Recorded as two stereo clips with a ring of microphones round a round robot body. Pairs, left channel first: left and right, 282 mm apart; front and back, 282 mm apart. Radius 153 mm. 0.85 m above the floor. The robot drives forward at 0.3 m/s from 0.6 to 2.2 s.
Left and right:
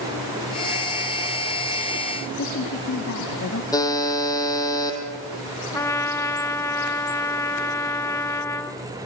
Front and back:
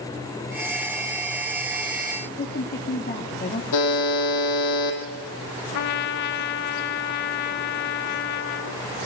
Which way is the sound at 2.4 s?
55° left.